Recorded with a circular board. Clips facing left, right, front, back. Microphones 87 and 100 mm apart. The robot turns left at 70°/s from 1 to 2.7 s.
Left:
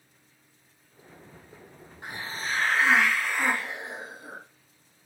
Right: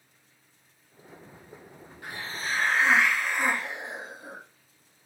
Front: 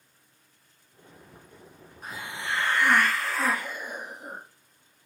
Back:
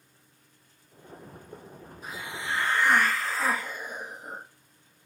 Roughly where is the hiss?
Ahead left.